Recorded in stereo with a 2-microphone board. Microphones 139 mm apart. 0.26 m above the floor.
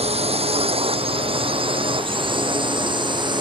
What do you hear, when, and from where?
0.0 s a drone: 45° right (ahead or behind); by 3.4 s 35° right (ahead or behind)